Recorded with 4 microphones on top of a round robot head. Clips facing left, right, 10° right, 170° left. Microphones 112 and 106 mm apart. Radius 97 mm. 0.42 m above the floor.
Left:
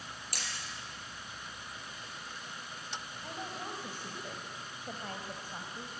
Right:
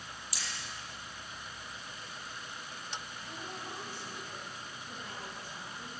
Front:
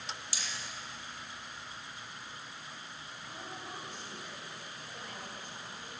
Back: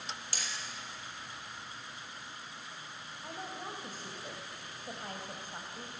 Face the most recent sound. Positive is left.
turn(degrees=125)